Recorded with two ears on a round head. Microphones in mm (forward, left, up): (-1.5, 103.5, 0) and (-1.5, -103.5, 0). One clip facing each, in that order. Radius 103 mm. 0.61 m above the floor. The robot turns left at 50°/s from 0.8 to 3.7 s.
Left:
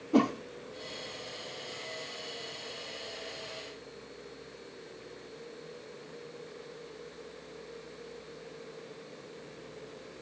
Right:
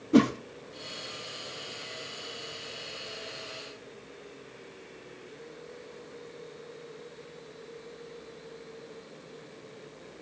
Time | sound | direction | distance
0.1 | a whoosh | 25° right (ahead or behind) | 0.6 m